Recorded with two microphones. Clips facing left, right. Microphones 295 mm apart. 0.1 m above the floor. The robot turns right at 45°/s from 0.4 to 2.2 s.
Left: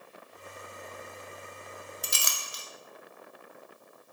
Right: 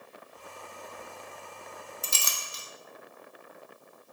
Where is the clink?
20° left (ahead or behind), 0.7 m.